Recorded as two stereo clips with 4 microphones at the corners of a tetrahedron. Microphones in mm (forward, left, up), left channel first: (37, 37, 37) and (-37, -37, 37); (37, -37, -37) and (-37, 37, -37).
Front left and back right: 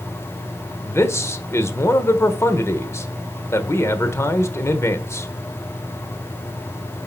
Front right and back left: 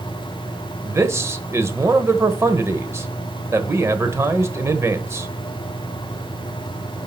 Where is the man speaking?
90° left, 1.0 m.